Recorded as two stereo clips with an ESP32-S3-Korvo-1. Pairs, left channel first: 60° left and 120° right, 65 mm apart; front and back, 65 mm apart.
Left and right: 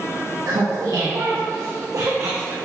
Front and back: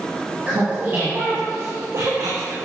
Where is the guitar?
No guitar in this recording.